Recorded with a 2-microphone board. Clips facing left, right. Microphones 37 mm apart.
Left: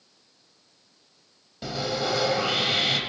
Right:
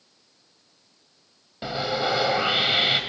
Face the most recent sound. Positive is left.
turn(degrees=-30)  # may be behind; listen again after turning